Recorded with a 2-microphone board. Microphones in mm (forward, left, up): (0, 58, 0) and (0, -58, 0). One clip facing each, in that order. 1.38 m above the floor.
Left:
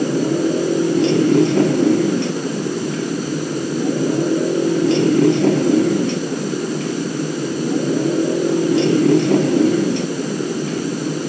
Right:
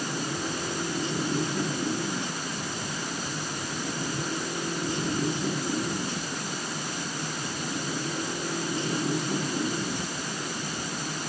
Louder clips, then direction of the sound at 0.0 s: Left 15 dB; 75° left (ahead or behind).